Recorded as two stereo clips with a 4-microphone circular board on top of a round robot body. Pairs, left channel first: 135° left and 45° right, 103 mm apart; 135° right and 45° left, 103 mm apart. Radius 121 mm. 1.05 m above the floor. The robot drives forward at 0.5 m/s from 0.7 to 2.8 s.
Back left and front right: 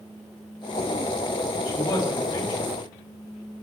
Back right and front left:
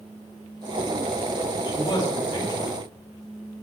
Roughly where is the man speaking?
Behind.